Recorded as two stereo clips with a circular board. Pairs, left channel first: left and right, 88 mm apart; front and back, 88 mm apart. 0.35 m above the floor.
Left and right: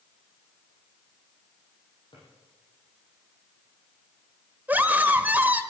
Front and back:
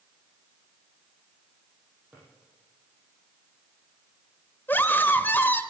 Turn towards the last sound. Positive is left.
turn(degrees=-40)